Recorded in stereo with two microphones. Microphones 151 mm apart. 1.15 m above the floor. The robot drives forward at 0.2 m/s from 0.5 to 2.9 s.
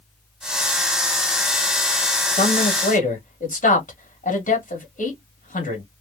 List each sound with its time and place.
2.3 s a man speaking: 65° left (ahead or behind), 1.7 m; by 5.8 s 60° left (ahead or behind), 1.8 m